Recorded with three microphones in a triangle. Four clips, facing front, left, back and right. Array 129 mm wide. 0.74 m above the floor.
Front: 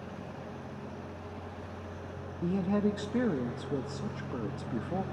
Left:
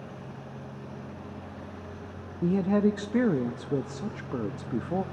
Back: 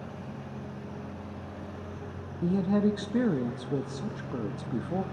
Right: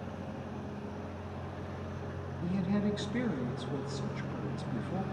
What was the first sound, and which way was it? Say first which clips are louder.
A woman speaking: left 8 dB, back 4 dB; 95° left.